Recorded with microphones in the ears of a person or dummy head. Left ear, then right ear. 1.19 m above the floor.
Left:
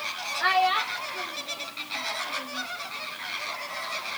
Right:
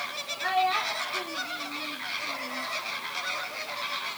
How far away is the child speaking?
About 0.6 m.